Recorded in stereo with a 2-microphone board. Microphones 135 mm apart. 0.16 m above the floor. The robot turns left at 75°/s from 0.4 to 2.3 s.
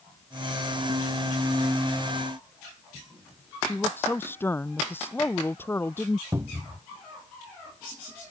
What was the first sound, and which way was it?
A woman speaking, 15° left (ahead or behind).